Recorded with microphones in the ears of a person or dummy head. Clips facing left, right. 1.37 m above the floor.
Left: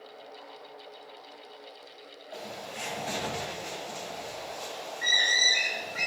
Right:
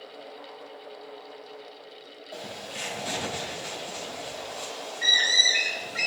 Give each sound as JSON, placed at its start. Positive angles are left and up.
{"t": 2.3, "sound": "a bird", "side_deg": -45, "distance_m": 2.5}